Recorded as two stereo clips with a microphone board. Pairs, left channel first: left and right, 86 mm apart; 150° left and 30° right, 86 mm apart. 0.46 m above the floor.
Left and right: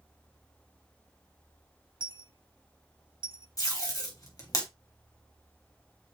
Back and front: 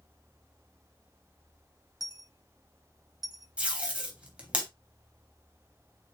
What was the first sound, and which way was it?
A dropped coin, 70° right.